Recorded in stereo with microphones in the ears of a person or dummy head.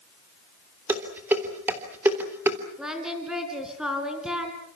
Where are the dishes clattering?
10° right (ahead or behind), 3.5 m.